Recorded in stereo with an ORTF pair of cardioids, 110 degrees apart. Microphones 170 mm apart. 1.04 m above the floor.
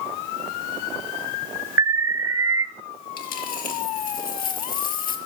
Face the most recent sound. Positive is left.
turn(degrees=60)